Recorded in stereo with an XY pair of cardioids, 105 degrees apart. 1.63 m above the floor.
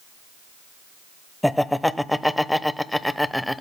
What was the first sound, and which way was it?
Laughter, 5° left.